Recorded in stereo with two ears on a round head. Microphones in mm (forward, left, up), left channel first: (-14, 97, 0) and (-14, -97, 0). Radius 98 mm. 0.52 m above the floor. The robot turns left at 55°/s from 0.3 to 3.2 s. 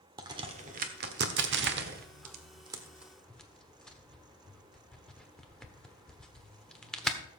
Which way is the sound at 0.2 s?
20° right (ahead or behind).